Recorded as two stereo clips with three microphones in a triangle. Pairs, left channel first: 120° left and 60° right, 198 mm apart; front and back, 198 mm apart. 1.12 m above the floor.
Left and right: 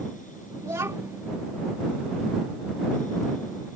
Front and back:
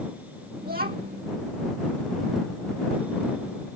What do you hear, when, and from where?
0.6 s a child speaking: 135° right